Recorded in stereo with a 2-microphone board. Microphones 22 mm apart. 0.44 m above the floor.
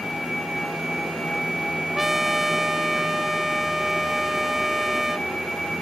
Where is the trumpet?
10° right (ahead or behind), 0.6 m.